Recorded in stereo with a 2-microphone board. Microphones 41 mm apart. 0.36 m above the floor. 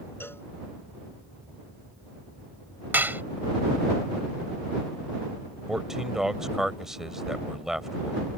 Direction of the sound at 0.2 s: 75° left (ahead or behind).